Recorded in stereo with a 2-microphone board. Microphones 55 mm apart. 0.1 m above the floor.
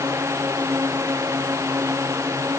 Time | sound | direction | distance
0.0 | a drone | 65° right (ahead or behind) | ?